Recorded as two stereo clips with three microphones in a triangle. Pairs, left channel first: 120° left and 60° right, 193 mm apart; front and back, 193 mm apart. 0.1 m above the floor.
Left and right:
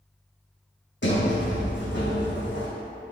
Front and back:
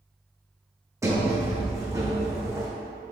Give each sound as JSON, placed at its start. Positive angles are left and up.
{"t": 1.0, "sound": "a sliding door", "azimuth_deg": 105, "distance_m": 2.5}